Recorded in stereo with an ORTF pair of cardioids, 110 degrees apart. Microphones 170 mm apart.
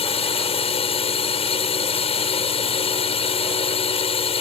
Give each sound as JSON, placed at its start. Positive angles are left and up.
{"t": 0.0, "sound": "a drone", "azimuth_deg": 35}